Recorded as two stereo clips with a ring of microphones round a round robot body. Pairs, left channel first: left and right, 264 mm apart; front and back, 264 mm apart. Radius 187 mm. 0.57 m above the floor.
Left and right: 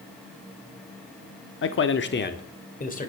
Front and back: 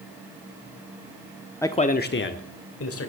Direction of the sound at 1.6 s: 80° left.